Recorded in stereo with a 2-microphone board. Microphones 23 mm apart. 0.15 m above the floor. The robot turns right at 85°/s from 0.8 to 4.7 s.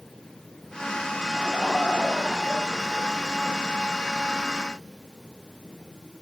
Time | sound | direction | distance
1.3 | laughter | 15° left | 6.5 m